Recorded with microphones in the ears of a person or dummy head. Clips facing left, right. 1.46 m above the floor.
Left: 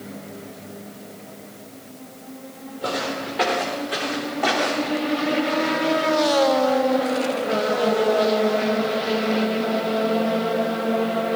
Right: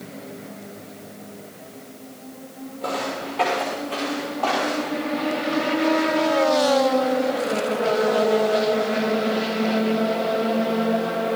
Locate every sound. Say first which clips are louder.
2.8 s footsteps: left 1 dB; 10° left (ahead or behind), 5.5 m; by 5.0 s 30° left (ahead or behind), 4 m